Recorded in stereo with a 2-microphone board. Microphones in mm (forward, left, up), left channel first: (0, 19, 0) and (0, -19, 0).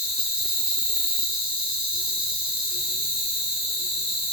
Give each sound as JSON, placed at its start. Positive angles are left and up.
{"t": 0.0, "sound": "an insect", "side_deg": -15, "distance_m": 4.0}